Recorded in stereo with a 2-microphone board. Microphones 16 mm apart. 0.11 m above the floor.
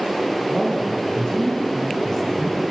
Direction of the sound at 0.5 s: 50° left (ahead or behind).